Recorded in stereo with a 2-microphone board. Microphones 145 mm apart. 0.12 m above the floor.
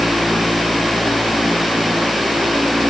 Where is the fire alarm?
I don't hear a fire alarm.